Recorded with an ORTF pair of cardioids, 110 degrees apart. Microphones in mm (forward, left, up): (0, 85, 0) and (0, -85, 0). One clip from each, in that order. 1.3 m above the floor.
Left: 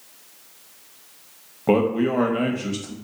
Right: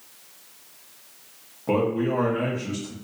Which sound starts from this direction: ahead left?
A man speaking, at 1.7 s.